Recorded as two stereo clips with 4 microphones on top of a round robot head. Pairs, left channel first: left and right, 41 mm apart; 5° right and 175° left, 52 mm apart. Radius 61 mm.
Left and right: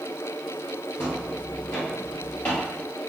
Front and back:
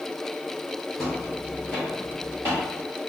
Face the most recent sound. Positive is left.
turn(degrees=145)